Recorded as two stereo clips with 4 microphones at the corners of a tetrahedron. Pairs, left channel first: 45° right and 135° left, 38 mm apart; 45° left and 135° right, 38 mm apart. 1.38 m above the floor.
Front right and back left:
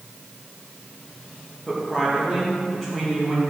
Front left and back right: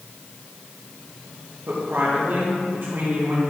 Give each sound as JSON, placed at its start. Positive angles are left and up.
{"t": 1.7, "sound": "a woman speaking", "azimuth_deg": -130, "distance_m": 2.0}